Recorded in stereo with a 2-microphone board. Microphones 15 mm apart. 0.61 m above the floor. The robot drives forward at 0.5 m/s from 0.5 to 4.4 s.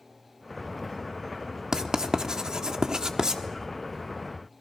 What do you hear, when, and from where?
1.7 s writing: 45° right (ahead or behind), 1.2 m; by 3.4 s 40° right (ahead or behind), 1.3 m